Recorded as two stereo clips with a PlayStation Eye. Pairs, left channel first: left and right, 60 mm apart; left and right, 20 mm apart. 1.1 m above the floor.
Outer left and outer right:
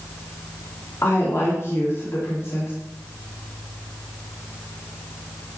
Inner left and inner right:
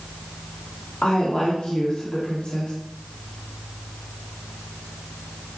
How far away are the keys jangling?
I don't hear keys jangling.